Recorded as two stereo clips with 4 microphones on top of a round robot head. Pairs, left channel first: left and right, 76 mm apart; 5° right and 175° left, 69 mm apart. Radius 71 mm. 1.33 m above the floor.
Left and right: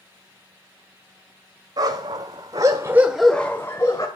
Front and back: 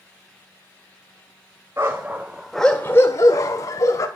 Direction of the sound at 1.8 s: 120° right.